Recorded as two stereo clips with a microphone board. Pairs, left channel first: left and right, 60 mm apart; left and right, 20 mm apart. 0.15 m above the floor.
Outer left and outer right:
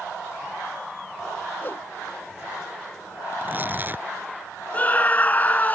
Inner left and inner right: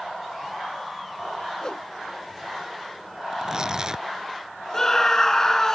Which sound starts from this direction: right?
Tearing paper, at 3.3 s.